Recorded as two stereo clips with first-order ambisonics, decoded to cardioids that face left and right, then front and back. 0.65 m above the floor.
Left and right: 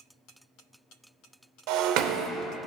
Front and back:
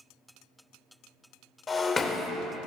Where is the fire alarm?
No fire alarm in this recording.